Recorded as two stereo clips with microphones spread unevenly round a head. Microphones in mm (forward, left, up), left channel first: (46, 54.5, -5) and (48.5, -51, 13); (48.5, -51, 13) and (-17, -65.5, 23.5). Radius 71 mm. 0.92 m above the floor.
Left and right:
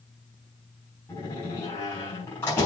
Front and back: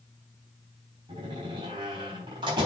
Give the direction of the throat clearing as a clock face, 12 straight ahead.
No throat clearing in this recording.